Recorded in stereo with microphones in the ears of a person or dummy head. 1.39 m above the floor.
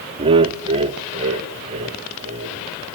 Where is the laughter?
30° right (ahead or behind), 0.5 m; by 2.6 s 40° right (ahead or behind), 3 m.